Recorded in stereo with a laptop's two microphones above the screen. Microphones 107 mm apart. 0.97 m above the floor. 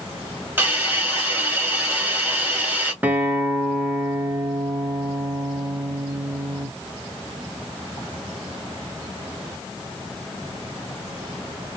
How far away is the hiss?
About 1.2 m.